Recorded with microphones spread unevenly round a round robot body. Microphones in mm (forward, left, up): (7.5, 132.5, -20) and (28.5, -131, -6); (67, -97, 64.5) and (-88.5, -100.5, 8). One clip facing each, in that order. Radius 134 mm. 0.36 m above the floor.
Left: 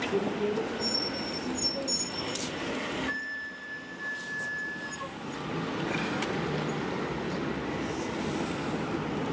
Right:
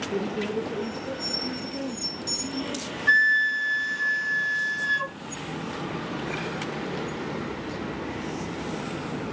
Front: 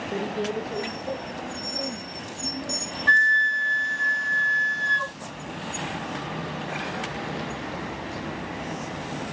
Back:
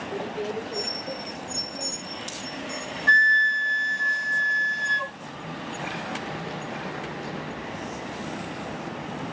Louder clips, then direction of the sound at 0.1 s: Right 1 dB, front 2 dB; 95° right.